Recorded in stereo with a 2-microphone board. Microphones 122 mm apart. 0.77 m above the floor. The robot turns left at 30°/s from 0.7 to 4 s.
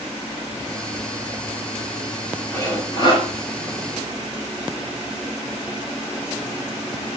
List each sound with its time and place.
2.5 s sawing: 25° left (ahead or behind), 5 m; by 3.3 s 50° left (ahead or behind), 5 m